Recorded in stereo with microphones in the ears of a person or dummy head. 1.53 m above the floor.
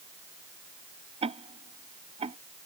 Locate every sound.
1.2 s ticking: 30° right (ahead or behind)